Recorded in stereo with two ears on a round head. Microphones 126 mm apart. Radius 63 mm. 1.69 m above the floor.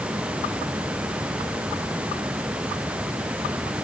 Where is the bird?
No bird in this recording.